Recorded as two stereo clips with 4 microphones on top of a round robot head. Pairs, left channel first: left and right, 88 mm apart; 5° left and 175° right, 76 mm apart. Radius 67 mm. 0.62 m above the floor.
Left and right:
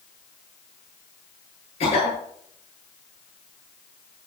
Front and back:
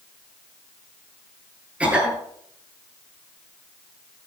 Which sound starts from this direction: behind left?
A cough, at 1.8 s.